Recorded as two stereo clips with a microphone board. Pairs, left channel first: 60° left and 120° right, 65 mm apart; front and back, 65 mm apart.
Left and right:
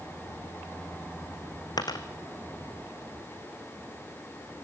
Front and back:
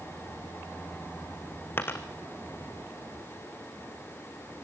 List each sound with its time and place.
1.8 s a dropped coin: 55° left, 1.4 m